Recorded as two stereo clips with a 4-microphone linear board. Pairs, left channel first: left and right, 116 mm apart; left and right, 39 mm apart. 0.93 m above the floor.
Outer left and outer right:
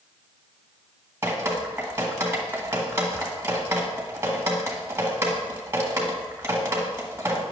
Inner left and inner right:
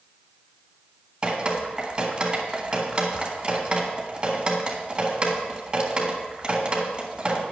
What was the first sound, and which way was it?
Dripping, 20° right (ahead or behind).